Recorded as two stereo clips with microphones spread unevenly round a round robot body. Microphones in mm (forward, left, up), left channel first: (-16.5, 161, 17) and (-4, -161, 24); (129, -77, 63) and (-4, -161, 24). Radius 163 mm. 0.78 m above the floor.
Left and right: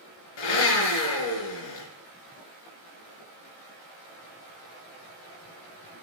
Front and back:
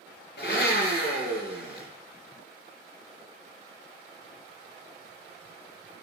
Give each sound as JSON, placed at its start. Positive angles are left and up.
{"t": 0.4, "sound": "a blender", "azimuth_deg": 90, "distance_m": 4.0}